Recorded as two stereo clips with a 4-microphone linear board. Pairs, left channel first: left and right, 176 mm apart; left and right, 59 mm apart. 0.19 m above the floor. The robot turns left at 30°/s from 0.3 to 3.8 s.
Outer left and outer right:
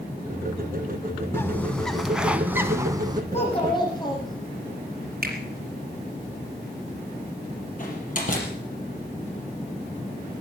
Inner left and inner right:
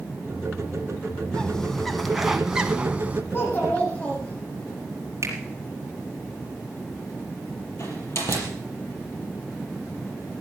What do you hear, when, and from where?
1.3 s a bird: 20° left, 1.3 m; by 3.2 s 35° right, 1.3 m
3.3 s a child speaking: 40° left (ahead or behind), 7.5 m; by 4.7 s 25° left (ahead or behind), 7.5 m
5.2 s a finger snap: 60° right (ahead or behind), 4.5 m
7.8 s a door slam: 50° left (ahead or behind), 4.5 m